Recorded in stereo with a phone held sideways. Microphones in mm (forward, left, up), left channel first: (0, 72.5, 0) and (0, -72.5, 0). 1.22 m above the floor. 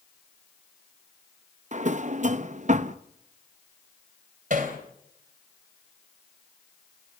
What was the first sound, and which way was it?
A drawer, 55° right (ahead or behind).